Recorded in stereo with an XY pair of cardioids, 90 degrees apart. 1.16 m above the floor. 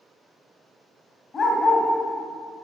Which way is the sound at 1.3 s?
50° left.